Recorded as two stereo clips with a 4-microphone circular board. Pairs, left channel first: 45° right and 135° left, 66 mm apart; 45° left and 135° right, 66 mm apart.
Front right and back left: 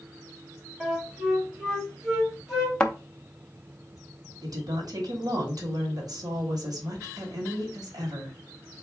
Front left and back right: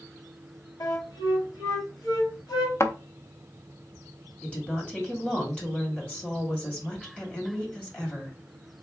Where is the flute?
55° left, 1.9 m.